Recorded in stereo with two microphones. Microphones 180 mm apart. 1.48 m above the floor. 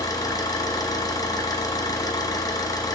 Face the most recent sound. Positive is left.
turn(degrees=20)  # may be behind; listen again after turning